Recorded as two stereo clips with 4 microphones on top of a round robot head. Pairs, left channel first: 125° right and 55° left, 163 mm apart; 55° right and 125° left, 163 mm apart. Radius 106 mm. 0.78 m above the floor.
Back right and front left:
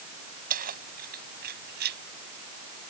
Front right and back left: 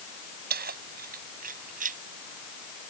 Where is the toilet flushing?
I don't hear a toilet flushing.